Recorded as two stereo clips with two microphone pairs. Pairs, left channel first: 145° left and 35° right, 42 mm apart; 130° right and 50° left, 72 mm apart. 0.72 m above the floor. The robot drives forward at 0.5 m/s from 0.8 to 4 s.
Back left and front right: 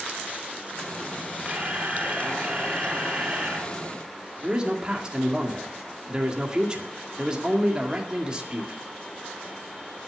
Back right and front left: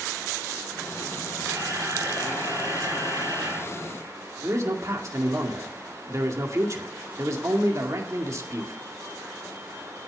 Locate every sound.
1.4 s a camera shutter: 20° left, 6 m; by 3.7 s 25° left, 5 m
4.4 s a man speaking: 25° left, 2 m